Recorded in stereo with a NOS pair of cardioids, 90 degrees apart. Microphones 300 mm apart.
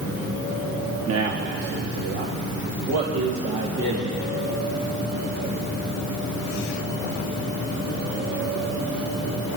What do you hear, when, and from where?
1.1 s a man speaking: 55° right, 1.0 m; by 4.2 s 70° right, 3.5 m